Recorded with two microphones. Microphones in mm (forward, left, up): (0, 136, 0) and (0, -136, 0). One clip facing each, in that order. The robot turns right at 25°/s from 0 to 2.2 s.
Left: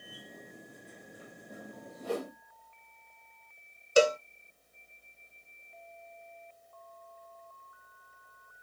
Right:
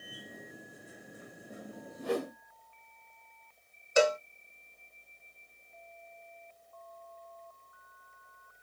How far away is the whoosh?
About 1.3 m.